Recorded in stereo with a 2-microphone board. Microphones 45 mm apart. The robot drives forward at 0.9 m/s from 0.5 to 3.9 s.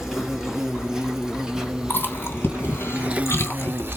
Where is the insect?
10° right (ahead or behind), 3 m; by 4.0 s 55° right (ahead or behind), 0.5 m.